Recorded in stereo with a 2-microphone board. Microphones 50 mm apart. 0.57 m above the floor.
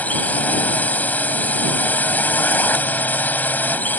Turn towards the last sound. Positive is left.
turn(degrees=35)  # may be behind; listen again after turning